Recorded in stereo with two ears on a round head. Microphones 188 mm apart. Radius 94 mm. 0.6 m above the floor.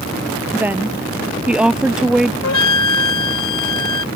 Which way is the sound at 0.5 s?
10° right (ahead or behind).